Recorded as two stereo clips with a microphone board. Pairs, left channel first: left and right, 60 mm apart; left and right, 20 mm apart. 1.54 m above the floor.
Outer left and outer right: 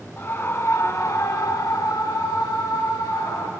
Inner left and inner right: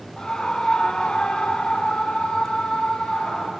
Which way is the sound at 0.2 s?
40° left (ahead or behind).